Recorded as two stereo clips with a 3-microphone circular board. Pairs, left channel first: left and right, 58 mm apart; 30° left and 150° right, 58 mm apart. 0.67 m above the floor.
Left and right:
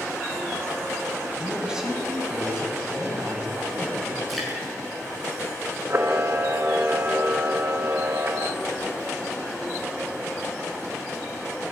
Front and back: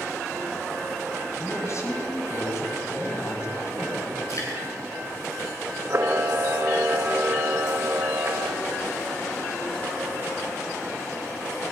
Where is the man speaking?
10° right, 5 m.